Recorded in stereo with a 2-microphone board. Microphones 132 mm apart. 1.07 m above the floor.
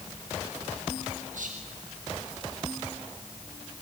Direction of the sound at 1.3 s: 75° right (ahead or behind).